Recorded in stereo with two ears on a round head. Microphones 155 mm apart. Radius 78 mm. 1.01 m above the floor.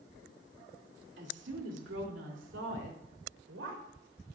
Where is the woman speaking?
75° right (ahead or behind), 2.5 m; by 3.8 s 85° right, 3.5 m.